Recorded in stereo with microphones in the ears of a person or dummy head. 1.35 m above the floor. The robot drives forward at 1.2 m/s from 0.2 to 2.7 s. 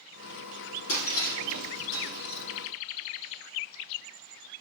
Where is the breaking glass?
70° left (ahead or behind), 4 m; by 2.5 s 65° left (ahead or behind), 4.5 m.